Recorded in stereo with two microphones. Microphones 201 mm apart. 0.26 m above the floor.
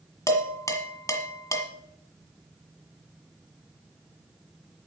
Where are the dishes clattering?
15° left (ahead or behind), 1.4 m.